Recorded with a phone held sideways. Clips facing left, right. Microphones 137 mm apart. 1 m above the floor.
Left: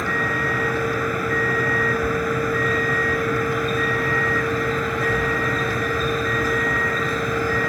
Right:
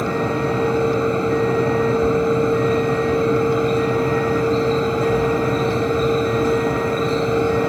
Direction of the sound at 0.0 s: 25° right (ahead or behind).